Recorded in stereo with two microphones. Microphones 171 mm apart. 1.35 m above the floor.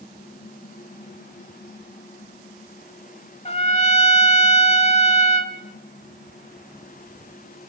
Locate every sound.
3.5 s a trumpet: 40° left (ahead or behind), 1.3 m